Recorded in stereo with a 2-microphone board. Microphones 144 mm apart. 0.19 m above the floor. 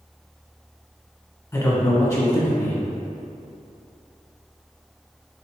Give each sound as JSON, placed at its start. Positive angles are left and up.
{"t": 1.5, "sound": "a man speaking", "side_deg": 25, "distance_m": 1.0}